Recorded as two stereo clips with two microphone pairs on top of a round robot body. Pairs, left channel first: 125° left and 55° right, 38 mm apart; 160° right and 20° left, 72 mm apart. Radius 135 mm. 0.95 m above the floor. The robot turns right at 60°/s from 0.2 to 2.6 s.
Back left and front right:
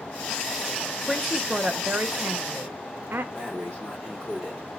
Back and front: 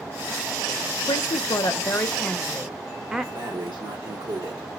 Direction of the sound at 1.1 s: 155° right.